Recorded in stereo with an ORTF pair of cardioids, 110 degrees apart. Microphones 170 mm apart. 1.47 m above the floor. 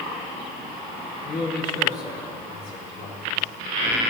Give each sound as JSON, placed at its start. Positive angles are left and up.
{"t": 1.2, "sound": "a man speaking", "azimuth_deg": 70, "distance_m": 4.0}